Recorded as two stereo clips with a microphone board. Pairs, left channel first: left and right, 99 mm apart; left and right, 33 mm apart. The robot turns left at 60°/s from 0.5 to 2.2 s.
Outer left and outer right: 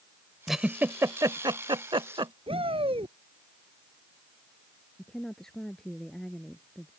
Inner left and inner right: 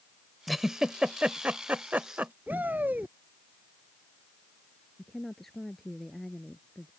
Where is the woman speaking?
5° left (ahead or behind).